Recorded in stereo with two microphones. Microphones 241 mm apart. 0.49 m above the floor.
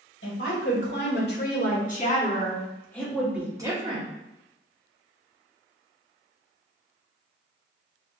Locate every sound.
0.2 s a woman speaking: 55° left (ahead or behind), 2 m; by 4.1 s 25° right (ahead or behind), 1.2 m